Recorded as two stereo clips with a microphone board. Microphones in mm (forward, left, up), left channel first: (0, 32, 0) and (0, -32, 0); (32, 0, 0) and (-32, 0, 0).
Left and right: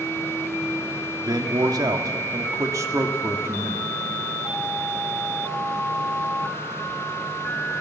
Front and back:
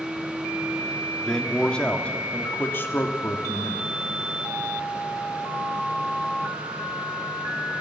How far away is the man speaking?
About 1.9 m.